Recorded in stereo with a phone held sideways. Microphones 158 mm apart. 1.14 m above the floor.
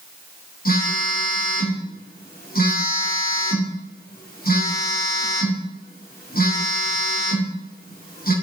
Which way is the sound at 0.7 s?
70° left (ahead or behind).